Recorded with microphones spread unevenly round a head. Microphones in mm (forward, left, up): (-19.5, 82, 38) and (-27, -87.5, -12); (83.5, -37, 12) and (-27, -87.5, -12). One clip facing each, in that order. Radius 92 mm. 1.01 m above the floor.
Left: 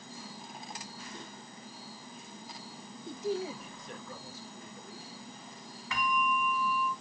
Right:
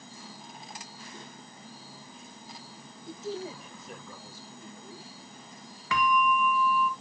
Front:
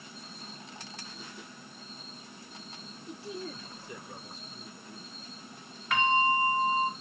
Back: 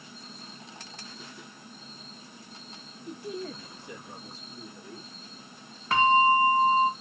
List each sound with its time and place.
3.1 s a man speaking: 155° left, 0.6 m; by 5.1 s 160° right, 1.8 m
5.9 s a bell: 105° right, 0.6 m